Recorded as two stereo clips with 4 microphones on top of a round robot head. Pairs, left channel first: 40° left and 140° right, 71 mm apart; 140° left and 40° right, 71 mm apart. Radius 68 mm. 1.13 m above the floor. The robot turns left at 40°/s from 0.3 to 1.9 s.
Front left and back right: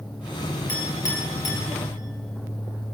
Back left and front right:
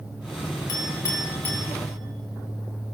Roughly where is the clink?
Left.